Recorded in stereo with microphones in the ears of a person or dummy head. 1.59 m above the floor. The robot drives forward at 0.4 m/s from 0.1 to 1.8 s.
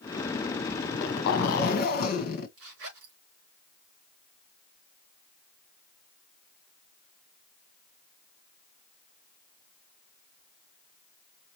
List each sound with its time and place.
0.8 s a zipper: 65° left (ahead or behind), 1.0 m; by 2.5 s 50° left (ahead or behind), 1.2 m
2.6 s a zipper: 80° right, 3 m